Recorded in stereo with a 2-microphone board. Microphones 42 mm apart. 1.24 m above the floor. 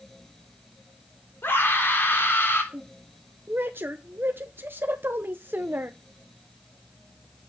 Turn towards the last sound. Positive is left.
turn(degrees=-60)  # may be behind; listen again after turning